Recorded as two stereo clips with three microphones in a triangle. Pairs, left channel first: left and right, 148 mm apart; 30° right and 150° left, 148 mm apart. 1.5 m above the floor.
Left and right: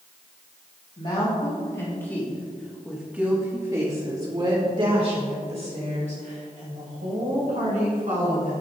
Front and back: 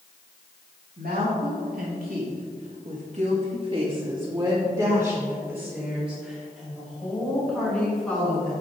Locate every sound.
1.0 s a woman speaking: 135° left, 3 m; by 8.5 s 110° right, 7.5 m